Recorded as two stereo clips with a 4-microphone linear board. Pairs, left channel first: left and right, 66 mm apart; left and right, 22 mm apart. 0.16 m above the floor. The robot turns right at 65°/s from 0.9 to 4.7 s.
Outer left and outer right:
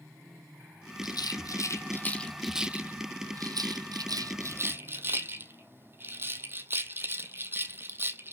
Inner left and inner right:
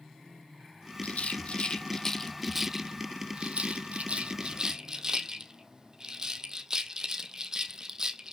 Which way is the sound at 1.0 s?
85° left.